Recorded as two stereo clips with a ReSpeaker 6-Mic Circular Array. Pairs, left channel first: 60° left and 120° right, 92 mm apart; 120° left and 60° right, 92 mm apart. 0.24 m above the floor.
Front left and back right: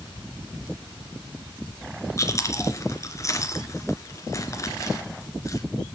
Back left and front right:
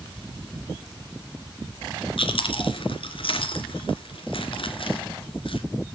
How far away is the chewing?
About 3 m.